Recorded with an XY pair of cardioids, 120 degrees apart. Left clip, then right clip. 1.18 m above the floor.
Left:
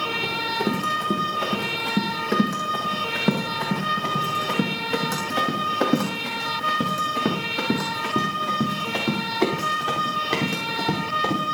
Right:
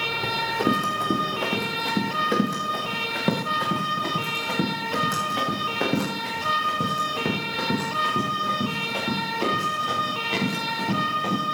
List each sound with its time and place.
0.2 s running footsteps: 15° right, 5.5 m; by 11.4 s 35° left, 8.5 m